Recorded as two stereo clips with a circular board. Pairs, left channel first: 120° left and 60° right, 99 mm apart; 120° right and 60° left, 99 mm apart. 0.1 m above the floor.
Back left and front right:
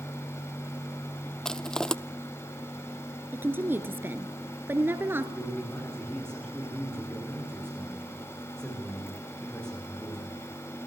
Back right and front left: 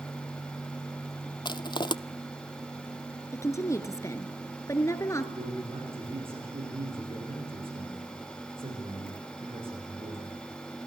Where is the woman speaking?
105° right, 1.7 m.